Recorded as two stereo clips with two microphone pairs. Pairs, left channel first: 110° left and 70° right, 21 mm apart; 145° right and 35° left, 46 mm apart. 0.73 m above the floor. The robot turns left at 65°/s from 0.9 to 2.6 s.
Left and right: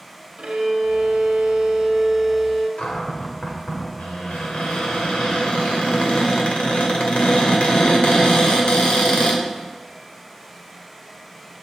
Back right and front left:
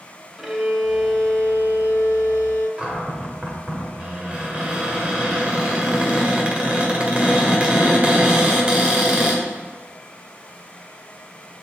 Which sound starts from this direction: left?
A cupboard door, at 2.8 s.